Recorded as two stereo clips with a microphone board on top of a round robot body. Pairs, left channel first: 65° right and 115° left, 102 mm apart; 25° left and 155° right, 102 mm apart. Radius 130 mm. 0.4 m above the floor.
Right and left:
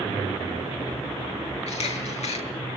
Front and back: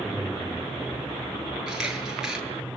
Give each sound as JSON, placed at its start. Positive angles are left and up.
{"t": 1.7, "sound": "a camera shutter", "azimuth_deg": -75, "distance_m": 8.5}